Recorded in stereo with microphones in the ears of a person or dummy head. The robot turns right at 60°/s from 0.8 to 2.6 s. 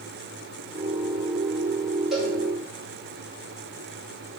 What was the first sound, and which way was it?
A cowbell, 5° right (ahead or behind).